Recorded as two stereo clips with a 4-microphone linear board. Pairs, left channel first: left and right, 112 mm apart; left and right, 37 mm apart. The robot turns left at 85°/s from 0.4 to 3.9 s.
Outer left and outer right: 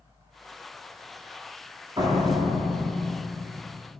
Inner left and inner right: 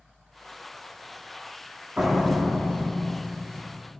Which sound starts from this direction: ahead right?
A door slam, at 2.0 s.